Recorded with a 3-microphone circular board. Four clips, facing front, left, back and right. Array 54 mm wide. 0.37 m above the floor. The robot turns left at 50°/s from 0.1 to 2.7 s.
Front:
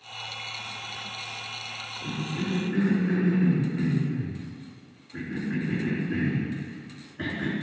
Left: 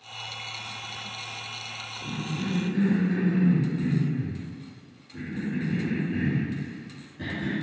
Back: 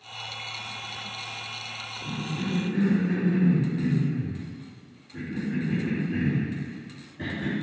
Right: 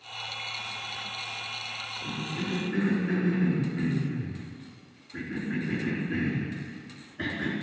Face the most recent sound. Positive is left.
turn(degrees=-35)